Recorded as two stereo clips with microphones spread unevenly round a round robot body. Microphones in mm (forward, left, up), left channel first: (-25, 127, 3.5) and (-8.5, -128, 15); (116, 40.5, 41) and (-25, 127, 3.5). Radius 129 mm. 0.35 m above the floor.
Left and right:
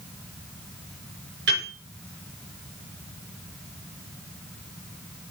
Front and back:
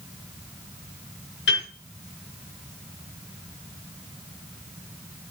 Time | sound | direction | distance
1.5 | a piano | 40° right | 4.5 m